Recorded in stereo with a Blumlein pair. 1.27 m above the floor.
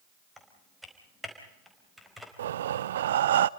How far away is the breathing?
About 0.6 m.